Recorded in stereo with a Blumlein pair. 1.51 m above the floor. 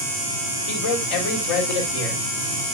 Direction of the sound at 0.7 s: 55° left.